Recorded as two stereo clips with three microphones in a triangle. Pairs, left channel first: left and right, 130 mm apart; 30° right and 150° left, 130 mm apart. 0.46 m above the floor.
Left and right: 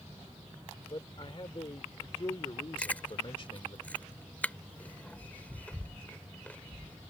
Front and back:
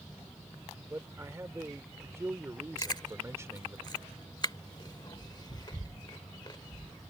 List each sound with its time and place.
0.9 s a man speaking: 95° left
2.8 s chewing: 15° left